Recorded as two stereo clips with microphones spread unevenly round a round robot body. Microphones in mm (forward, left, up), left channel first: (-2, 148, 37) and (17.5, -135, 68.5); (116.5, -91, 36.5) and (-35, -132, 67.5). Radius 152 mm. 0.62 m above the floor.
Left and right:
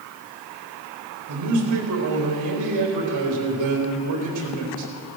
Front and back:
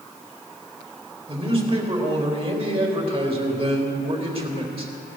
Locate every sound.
1.3 s a man speaking: 110° right, 3.5 m